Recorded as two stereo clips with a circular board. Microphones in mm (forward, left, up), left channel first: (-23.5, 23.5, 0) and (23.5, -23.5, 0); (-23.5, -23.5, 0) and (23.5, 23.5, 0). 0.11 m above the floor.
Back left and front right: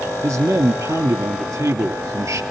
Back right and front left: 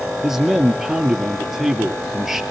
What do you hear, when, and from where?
0.2 s a man speaking: 35° right, 2 m